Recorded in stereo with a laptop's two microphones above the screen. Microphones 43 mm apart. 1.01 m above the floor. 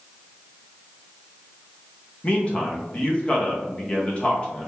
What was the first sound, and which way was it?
A man speaking, 30° left (ahead or behind).